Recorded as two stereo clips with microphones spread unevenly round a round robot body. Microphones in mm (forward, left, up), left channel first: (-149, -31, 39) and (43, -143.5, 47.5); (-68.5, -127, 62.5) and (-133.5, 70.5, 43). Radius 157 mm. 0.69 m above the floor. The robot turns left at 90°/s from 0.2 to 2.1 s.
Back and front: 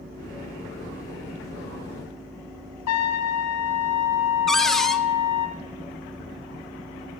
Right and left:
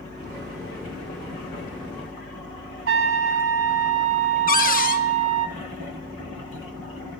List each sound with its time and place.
2.9 s a trumpet: 135° left, 0.8 m
4.5 s a cupboard door: 125° right, 0.8 m